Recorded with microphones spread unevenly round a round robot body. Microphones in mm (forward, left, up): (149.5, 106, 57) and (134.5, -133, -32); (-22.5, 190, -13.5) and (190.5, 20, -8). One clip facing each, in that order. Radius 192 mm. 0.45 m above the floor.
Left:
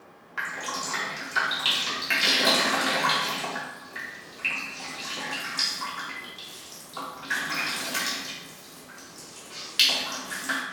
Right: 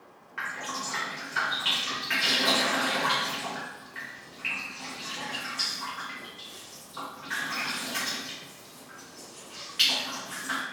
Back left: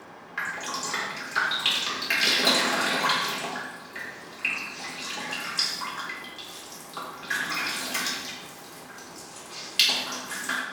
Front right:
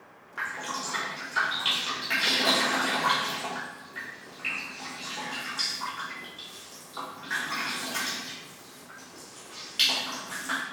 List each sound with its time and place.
0.4 s dripping: 125° left, 0.9 m